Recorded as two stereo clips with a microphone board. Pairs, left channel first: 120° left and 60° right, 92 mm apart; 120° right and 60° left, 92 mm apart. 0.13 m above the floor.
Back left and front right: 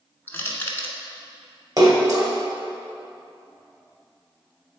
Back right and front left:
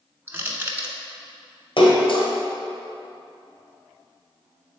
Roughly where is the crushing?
Left.